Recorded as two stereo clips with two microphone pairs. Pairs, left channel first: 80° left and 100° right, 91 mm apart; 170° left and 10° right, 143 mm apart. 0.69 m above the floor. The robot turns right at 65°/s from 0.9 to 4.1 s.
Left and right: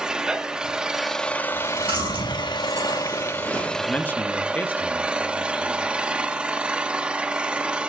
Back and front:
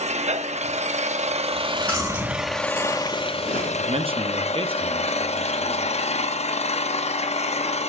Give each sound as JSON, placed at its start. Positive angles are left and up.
{"t": 0.0, "sound": "an engine running", "azimuth_deg": -25, "distance_m": 0.7}
{"t": 1.5, "sound": "chewing", "azimuth_deg": -135, "distance_m": 7.5}
{"t": 3.8, "sound": "a man speaking", "azimuth_deg": -5, "distance_m": 0.8}